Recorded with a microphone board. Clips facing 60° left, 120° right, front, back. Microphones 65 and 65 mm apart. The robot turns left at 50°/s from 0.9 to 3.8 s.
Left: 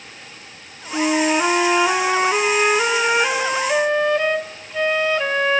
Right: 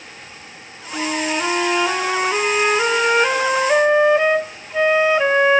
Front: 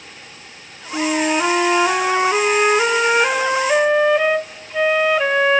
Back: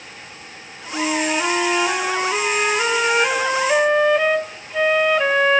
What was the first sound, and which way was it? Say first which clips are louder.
A flute: left 4 dB, front 3 dB; 60° left.